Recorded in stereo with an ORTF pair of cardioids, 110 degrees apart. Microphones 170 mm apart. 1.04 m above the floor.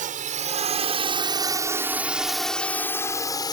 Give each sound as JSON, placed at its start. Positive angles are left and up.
{"t": 0.0, "sound": "a drone", "azimuth_deg": -55}